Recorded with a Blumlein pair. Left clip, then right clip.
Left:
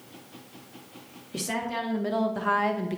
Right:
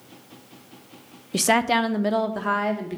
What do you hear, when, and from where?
1.3 s a woman speaking: 65° right, 0.6 m; by 3.0 s 5° left, 1.0 m